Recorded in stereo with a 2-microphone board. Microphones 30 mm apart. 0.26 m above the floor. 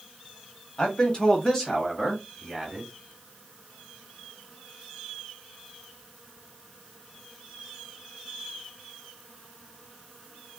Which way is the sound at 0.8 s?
35° left (ahead or behind).